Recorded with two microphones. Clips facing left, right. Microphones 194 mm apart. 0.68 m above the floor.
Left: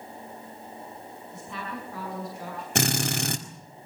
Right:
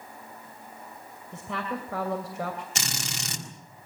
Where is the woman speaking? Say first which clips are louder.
Right 5 dB; 75° right (ahead or behind), 2.5 m.